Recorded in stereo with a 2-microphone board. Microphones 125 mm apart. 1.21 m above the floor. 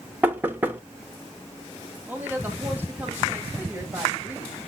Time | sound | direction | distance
0.2 | knocking | 15° right (ahead or behind) | 1.1 m
2.1 | a woman speaking | 15° right (ahead or behind) | 2.5 m